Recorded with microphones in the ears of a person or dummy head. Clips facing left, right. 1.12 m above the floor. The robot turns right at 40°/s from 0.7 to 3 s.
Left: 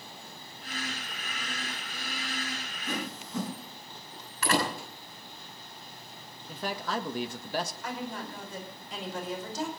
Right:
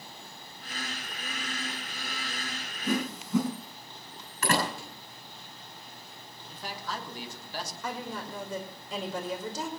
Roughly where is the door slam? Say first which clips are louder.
Even; right.